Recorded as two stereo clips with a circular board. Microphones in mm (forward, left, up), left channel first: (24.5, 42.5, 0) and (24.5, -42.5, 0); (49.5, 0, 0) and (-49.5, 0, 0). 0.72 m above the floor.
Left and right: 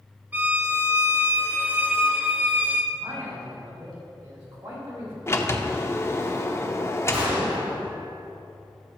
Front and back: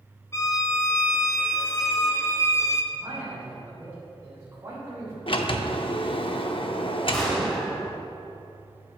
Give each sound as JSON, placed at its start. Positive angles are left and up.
{"t": 0.3, "sound": "a violin", "azimuth_deg": -35, "distance_m": 0.8}
{"t": 2.9, "sound": "a man speaking", "azimuth_deg": -120, "distance_m": 3.5}
{"t": 5.3, "sound": "a sliding door", "azimuth_deg": 30, "distance_m": 0.7}
{"t": 7.1, "sound": "an explosion", "azimuth_deg": -85, "distance_m": 3.5}